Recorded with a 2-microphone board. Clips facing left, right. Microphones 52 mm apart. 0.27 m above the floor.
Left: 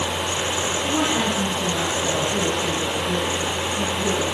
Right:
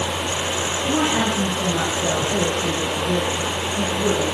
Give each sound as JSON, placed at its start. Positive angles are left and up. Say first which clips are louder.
{"t": 0.8, "sound": "a woman speaking", "louder": "right 3 dB", "side_deg": -35, "distance_m": 8.5}